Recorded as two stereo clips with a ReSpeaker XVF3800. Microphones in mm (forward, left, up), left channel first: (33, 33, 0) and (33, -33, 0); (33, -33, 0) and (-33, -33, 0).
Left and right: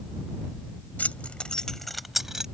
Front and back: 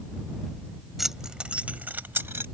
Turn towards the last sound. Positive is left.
turn(degrees=-165)